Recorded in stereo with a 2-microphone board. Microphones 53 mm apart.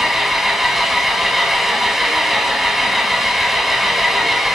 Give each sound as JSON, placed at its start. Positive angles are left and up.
{"t": 0.0, "sound": "an engine running", "side_deg": 0, "distance_m": 1.2}